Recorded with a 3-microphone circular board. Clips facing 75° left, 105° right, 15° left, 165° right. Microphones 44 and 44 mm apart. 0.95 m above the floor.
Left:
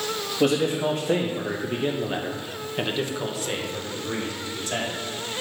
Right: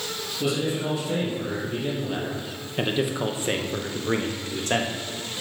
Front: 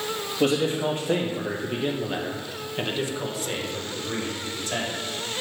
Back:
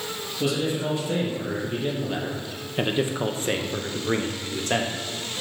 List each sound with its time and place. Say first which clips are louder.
0.4 s a man speaking: left 4 dB, front 3 dB; 60° left, 1.5 m; by 4.9 s 135° right, 1.5 m